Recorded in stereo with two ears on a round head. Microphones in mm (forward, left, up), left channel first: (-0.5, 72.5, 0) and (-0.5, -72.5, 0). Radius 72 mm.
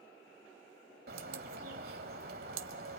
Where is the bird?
60° right (ahead or behind), 1.5 m.